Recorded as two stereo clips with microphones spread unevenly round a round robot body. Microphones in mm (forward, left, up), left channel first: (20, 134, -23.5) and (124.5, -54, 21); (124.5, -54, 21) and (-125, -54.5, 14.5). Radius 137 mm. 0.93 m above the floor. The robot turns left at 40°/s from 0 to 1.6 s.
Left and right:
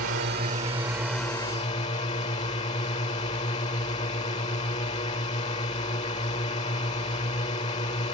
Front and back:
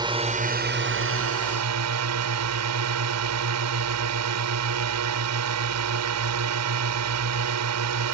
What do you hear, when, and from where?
0.0 s a drone: 105° right; by 8.1 s 170° right